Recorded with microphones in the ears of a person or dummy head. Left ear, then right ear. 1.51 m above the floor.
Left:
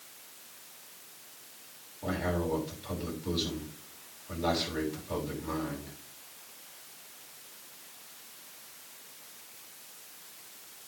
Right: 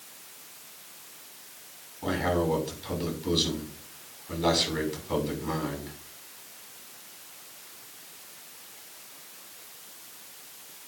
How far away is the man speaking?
About 6.5 m.